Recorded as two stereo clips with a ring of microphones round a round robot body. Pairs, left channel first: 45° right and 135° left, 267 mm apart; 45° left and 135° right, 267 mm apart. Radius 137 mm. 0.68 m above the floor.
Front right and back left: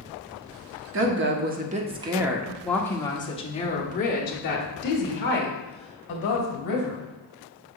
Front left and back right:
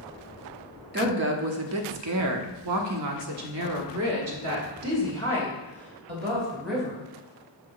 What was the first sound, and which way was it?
A woman speaking, 175° left.